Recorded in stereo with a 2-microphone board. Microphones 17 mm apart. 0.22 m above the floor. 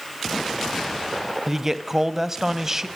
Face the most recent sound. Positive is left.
turn(degrees=-20)  # may be behind; listen again after turning